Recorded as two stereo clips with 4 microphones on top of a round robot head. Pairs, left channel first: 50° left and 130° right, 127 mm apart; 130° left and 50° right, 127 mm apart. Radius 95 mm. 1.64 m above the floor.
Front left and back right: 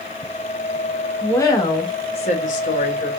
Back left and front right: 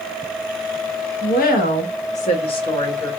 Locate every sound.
1.2 s a woman speaking: 125° left, 1.0 m; by 3.1 s 60° left, 0.9 m